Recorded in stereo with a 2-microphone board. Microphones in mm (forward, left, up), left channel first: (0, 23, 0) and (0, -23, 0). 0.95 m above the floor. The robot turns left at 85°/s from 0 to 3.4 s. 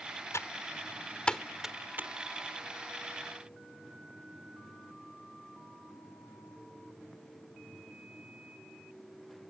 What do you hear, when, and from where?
0.3 s typing on a keyboard: 80° left; by 2.1 s 50° right (ahead or behind)